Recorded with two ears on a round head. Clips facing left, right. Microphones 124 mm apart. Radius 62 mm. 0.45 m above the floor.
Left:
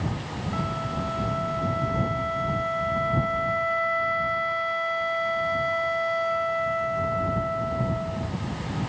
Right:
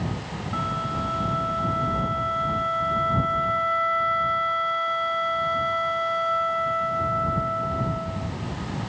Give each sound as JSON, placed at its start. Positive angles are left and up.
{"t": 0.5, "sound": "a flute", "side_deg": 15}